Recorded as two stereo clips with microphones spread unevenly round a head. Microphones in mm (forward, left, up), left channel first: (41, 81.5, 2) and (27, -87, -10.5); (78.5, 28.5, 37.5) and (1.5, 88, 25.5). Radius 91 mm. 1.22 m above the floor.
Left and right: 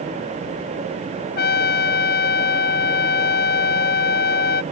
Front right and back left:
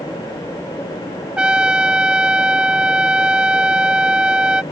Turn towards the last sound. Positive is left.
turn(degrees=60)